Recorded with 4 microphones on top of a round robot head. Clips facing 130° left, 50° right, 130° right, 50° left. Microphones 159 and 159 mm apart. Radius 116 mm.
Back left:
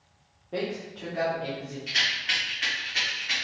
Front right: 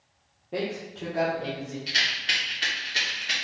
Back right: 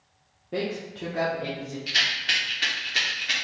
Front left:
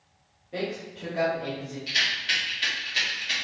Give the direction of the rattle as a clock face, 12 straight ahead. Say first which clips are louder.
Front right 1 dB, back right 2 dB; 3 o'clock.